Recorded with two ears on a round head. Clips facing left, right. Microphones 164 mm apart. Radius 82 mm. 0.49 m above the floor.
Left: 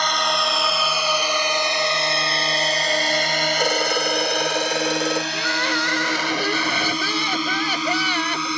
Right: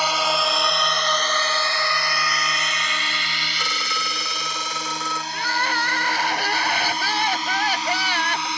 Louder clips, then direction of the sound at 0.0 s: Right 1 dB; 5° right (ahead or behind).